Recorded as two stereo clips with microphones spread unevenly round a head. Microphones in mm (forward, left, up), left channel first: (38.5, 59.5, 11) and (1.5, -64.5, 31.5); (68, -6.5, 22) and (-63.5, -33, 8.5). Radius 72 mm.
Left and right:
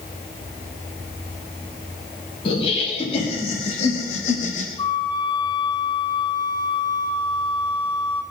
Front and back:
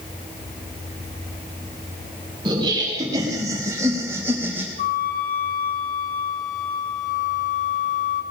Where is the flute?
30° left, 1.6 m.